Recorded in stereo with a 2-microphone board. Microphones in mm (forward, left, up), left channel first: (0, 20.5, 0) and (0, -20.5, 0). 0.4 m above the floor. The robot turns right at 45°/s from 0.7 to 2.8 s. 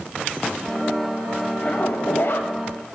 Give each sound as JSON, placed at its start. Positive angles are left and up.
{"t": 1.6, "sound": "a zipper", "azimuth_deg": 45, "distance_m": 1.1}